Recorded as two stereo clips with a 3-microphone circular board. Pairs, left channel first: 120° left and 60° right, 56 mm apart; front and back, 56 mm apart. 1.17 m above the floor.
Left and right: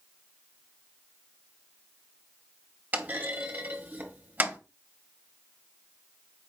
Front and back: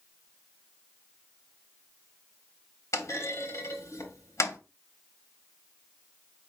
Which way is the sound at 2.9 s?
5° right.